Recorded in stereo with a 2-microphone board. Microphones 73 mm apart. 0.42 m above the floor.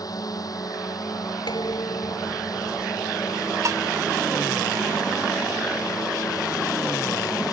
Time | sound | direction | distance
0.0 | a drone | 55° left (ahead or behind) | ?
1.5 | dishes clattering | 75° left (ahead or behind) | ?
3.6 | dishes clattering | 45° right (ahead or behind) | ?